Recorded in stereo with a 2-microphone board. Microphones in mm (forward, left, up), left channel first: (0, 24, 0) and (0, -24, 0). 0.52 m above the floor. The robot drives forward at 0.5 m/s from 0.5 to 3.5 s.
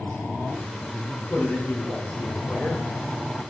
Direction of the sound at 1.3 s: 55° left (ahead or behind).